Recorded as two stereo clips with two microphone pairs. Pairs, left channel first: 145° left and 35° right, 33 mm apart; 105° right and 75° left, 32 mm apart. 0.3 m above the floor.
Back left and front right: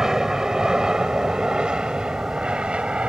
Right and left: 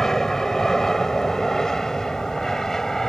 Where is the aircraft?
65° right; by 3.1 s 40° right.